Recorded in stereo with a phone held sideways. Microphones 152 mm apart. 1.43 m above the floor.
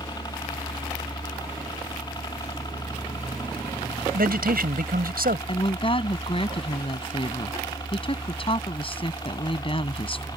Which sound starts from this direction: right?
A man speaking, at 4.1 s.